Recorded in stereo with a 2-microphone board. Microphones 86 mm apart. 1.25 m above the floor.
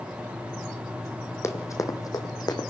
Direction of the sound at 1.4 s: 35° left (ahead or behind).